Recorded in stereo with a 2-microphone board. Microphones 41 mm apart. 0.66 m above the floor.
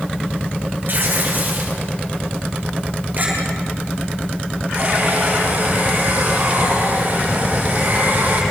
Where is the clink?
45° right (ahead or behind), 9 m.